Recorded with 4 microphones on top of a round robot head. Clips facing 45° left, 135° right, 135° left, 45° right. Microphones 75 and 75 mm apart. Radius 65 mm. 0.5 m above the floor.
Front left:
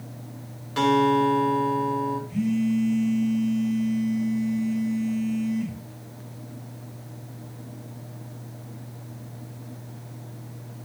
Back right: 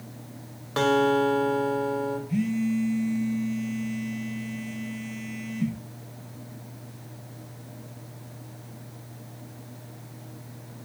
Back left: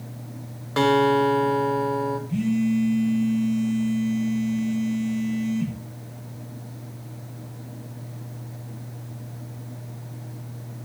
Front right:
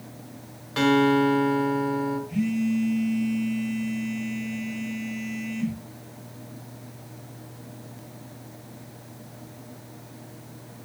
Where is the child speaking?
No child speaking in this recording.